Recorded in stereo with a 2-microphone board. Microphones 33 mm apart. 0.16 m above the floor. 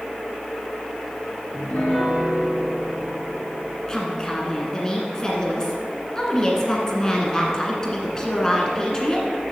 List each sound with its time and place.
1.5 s a piano: 65° left (ahead or behind), 3 m
3.9 s a woman speaking: 20° left (ahead or behind), 1.5 m